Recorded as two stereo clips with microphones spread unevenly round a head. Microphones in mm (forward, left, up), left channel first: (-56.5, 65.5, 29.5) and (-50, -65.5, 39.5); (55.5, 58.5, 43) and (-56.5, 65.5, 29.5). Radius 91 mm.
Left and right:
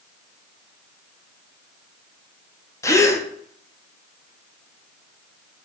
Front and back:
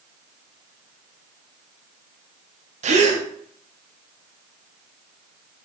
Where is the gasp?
160° left, 0.7 m.